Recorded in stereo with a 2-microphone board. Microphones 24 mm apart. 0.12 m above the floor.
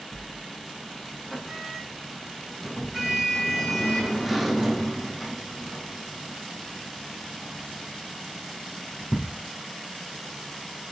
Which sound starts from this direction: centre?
A sliding door, at 0.1 s.